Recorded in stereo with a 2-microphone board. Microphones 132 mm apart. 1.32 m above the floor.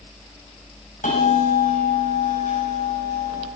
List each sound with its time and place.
1.0 s a bell: 85° left, 8.5 m